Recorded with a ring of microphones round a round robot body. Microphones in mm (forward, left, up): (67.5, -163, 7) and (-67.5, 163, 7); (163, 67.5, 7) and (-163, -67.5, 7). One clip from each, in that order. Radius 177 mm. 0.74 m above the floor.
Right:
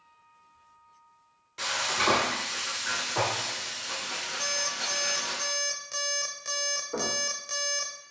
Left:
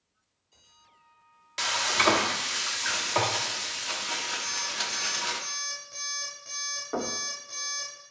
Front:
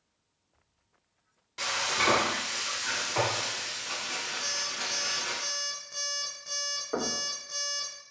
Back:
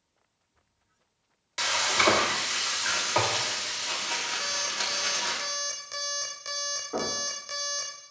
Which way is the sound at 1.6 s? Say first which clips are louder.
Left 3 dB, back 4 dB; 150° left.